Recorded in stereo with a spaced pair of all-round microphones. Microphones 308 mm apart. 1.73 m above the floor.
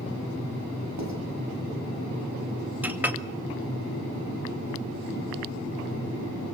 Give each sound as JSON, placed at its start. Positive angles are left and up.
{"t": 1.0, "sound": "writing", "side_deg": -60, "distance_m": 7.5}
{"t": 2.8, "sound": "a clink", "side_deg": -5, "distance_m": 1.8}